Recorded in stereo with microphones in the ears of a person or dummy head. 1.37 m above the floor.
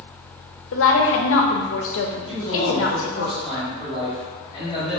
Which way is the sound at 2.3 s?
35° left (ahead or behind).